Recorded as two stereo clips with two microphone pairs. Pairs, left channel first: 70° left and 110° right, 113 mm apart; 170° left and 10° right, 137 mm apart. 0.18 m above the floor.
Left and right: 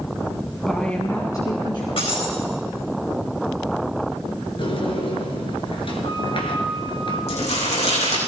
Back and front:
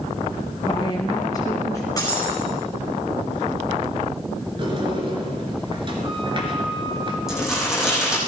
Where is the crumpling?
80° left, 9 m.